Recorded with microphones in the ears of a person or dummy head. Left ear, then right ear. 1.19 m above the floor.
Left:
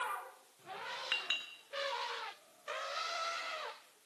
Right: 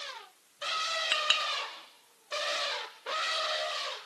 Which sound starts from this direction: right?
A clink, at 1.1 s.